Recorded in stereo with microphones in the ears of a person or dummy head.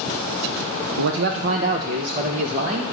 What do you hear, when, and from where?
1.0 s a man speaking: 65° right (ahead or behind), 0.6 m; by 2.8 s 40° right (ahead or behind), 1.3 m